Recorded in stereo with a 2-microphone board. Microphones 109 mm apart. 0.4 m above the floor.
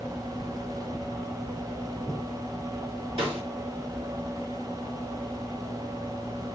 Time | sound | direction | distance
3.2 | a snare drum | 50° right (ahead or behind) | 3 m